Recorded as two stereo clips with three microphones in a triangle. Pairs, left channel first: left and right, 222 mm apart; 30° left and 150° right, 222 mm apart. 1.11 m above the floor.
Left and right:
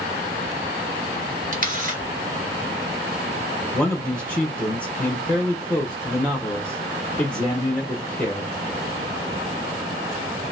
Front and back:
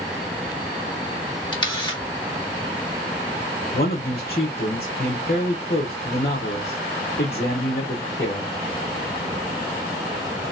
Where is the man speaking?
5° left, 1.0 m.